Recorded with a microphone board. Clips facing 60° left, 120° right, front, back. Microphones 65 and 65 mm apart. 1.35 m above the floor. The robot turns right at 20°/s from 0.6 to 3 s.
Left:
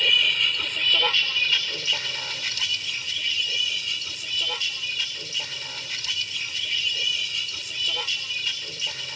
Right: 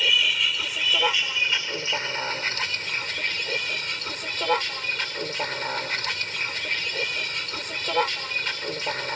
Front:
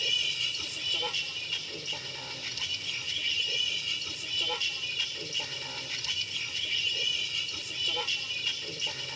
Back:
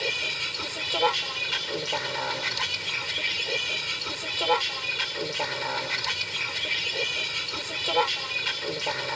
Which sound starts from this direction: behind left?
A vehicle, at 0.0 s.